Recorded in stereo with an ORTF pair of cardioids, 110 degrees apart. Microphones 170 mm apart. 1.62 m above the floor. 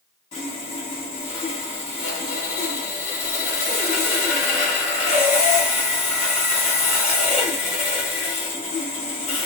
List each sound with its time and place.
0.3 s sawing: 40° left, 1.9 m